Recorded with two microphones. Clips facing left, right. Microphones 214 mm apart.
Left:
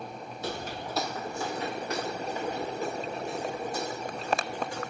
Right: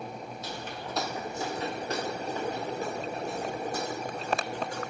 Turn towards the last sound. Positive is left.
turn(degrees=-45)  # may be behind; listen again after turning